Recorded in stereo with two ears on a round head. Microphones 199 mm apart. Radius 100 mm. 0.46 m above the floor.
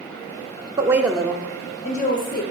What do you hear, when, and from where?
0.8 s a woman speaking: 20° right (ahead or behind), 0.8 m; by 2.4 s 45° left (ahead or behind), 1.1 m